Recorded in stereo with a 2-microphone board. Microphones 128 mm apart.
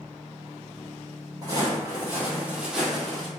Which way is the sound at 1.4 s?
30° right (ahead or behind).